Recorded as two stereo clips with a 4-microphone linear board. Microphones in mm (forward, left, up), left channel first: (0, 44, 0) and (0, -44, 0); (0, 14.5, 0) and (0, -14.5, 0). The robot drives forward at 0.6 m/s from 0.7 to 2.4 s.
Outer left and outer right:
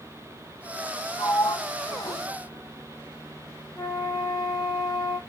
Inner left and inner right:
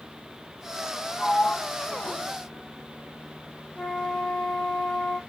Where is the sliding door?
55° left (ahead or behind), 0.8 m; by 2.2 s 60° left (ahead or behind), 0.7 m.